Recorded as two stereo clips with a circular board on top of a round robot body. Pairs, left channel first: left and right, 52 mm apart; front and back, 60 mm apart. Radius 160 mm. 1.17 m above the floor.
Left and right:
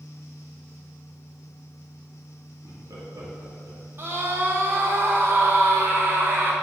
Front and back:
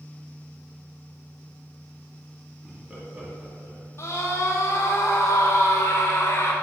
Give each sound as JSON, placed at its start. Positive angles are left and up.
{"t": 2.6, "sound": "laughter", "azimuth_deg": -95, "distance_m": 2.5}
{"t": 4.0, "sound": "a scream", "azimuth_deg": -45, "distance_m": 2.5}